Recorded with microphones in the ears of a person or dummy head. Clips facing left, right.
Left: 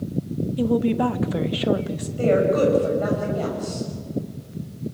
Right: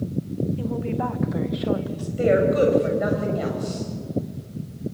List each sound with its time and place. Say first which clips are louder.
0.6 s a woman speaking: left 6 dB; 55° left (ahead or behind), 1.1 m; by 2.1 s 30° left (ahead or behind), 1.6 m
2.2 s a woman speaking: even; 20° right (ahead or behind), 7.5 m